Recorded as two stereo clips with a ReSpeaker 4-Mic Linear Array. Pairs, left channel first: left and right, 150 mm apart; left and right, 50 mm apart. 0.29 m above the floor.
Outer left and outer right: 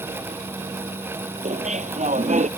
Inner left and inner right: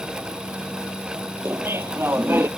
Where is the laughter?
55° right (ahead or behind).